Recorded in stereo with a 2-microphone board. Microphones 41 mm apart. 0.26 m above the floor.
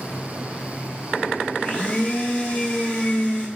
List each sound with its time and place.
1.6 s a blender: 25° left (ahead or behind), 1.7 m